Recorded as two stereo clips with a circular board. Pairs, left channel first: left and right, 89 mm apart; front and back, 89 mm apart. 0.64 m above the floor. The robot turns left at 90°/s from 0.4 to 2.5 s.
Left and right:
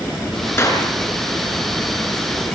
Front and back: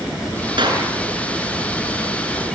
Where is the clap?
155° left, 5.5 m; by 0.8 s 130° left, 5.5 m.